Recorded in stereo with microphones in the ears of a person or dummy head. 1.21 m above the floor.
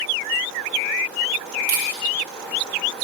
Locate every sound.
1.7 s a camera shutter: 45° right (ahead or behind), 3 m